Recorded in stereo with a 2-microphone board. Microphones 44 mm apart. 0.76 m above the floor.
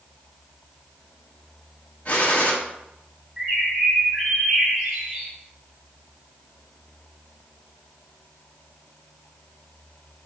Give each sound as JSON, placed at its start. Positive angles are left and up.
{"t": 2.0, "sound": "a gunshot", "side_deg": 35, "distance_m": 0.9}
{"t": 3.4, "sound": "a bird", "side_deg": -5, "distance_m": 2.0}